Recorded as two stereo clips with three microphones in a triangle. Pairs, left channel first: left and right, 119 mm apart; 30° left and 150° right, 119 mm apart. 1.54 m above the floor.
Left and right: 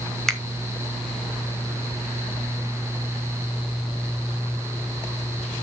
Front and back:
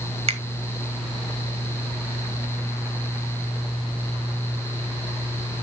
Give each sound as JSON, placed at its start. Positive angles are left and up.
{"t": 0.3, "sound": "a finger snap", "azimuth_deg": 175, "distance_m": 1.2}